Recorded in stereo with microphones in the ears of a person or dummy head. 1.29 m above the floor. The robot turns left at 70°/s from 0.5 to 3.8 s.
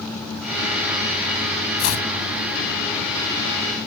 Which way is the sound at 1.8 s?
80° left.